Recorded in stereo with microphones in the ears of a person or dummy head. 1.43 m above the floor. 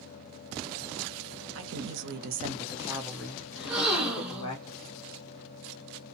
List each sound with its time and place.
1.6 s a woman speaking: 80° right, 0.8 m; by 4.5 s 30° left (ahead or behind), 1.3 m
3.5 s a gasp: centre (ahead or behind), 0.7 m